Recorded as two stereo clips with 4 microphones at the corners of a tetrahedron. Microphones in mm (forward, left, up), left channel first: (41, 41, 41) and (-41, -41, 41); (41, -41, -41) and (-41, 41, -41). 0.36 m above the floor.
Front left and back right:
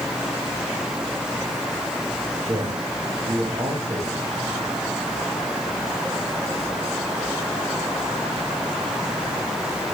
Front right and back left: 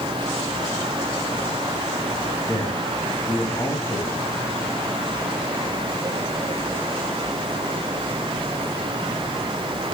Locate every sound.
2.5 s a man speaking: 100° right, 2.5 m